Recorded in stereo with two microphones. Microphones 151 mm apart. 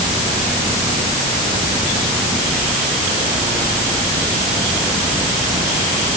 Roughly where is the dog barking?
No dog barking in this recording.